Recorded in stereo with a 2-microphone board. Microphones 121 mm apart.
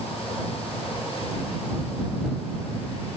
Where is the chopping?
No chopping in this recording.